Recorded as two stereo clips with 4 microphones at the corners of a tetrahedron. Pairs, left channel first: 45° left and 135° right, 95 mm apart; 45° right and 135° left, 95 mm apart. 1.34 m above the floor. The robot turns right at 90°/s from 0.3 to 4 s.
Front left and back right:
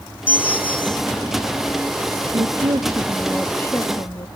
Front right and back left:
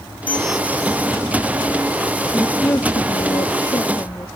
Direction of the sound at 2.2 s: 145° right.